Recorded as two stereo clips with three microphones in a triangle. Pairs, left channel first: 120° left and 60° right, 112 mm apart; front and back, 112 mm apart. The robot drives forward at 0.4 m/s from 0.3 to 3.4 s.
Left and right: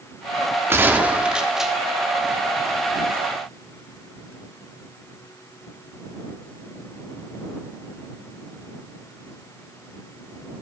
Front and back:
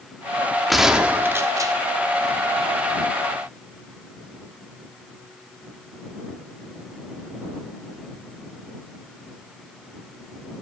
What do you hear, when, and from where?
0.7 s a gunshot: 85° right, 0.7 m; by 1.7 s 145° right, 0.8 m